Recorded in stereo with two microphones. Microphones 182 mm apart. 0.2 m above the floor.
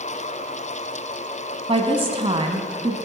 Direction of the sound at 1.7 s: 30° right (ahead or behind).